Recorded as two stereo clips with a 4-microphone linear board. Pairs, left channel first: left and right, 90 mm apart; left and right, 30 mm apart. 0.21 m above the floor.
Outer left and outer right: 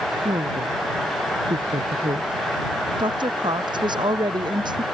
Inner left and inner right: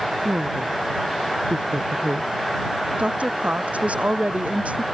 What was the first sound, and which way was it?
A woman speaking, 70° right (ahead or behind).